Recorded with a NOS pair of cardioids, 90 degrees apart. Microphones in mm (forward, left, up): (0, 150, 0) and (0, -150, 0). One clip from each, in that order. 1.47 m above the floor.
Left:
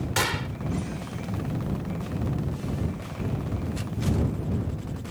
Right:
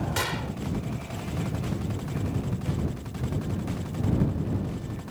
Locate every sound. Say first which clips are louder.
0.2 s a gunshot: left 5 dB; 25° left